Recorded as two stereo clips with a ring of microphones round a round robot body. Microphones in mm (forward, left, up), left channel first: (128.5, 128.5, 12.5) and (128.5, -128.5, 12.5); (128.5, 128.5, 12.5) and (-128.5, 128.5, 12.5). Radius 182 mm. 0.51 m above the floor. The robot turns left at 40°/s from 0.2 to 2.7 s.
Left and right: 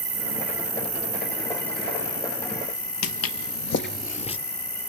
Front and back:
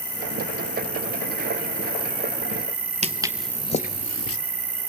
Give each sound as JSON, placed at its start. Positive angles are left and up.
{"t": 0.0, "sound": "an insect", "azimuth_deg": -90, "distance_m": 1.5}
{"t": 3.0, "sound": "footsteps", "azimuth_deg": 115, "distance_m": 0.8}